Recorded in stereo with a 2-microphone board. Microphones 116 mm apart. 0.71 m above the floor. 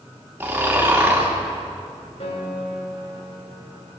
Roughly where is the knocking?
No knocking in this recording.